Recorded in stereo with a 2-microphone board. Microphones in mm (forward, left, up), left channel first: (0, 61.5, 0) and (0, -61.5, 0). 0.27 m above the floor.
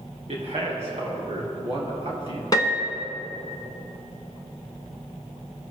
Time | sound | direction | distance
0.3 | a man speaking | 60° right (ahead or behind) | 4 m
2.5 | a piano | 30° left (ahead or behind) | 1.3 m